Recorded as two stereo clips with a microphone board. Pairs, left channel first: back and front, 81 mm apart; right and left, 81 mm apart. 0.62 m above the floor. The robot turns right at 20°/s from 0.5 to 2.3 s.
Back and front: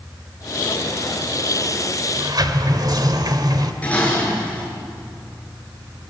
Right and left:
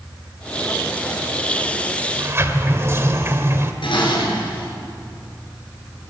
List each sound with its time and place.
2.2 s a sliding door: 30° left, 2 m
3.8 s dishes clattering: 105° right, 6.5 m